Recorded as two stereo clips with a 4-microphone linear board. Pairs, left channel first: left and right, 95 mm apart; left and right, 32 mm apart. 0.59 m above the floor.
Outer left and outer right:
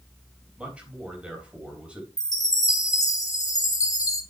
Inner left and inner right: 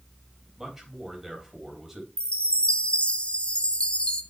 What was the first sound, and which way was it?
A man speaking, 10° right (ahead or behind).